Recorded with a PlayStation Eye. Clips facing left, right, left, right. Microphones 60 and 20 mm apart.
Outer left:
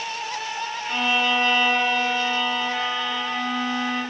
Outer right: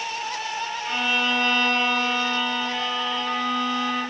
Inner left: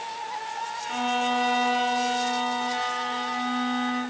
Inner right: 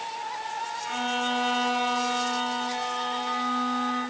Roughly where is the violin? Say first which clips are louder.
Outer left 2 dB, inner left 3 dB; left.